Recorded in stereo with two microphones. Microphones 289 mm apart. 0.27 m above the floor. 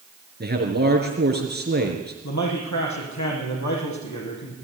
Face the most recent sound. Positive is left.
turn(degrees=80)